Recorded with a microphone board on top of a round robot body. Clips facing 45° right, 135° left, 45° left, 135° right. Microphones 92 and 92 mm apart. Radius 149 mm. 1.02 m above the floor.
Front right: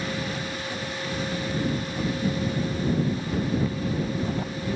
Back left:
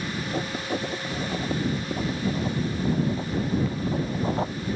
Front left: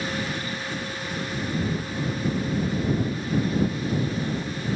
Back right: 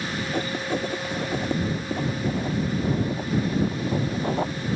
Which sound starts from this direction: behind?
Writing, at 0.3 s.